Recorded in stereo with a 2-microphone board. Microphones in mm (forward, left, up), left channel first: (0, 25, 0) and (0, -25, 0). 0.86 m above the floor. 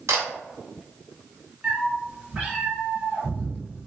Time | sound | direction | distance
0.1 | a camera shutter | 70° right (ahead or behind) | 0.7 m
1.6 | a cat meowing | 20° right (ahead or behind) | 1.3 m